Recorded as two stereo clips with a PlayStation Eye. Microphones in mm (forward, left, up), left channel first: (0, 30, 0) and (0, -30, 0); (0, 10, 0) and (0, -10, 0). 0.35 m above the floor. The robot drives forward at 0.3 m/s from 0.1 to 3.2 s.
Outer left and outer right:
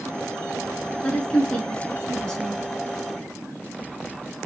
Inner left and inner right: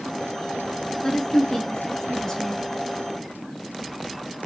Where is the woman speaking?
20° left (ahead or behind), 4.5 m; by 2.6 s 15° left (ahead or behind), 4.5 m.